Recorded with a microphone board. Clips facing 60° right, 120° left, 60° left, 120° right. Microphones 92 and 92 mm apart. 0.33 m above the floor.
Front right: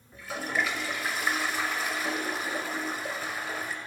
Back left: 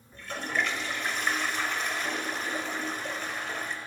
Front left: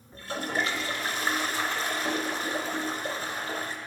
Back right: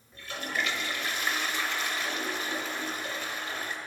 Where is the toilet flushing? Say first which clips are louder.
Front right 1 dB, front left 4 dB; 20° left, 0.5 m.